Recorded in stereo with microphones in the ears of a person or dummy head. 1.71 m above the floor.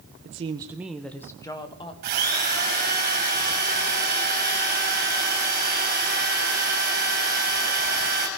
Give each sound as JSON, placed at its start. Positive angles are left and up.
{"t": 0.2, "sound": "a woman speaking", "side_deg": -35, "distance_m": 0.9}
{"t": 2.0, "sound": "a drill", "side_deg": -45, "distance_m": 3.5}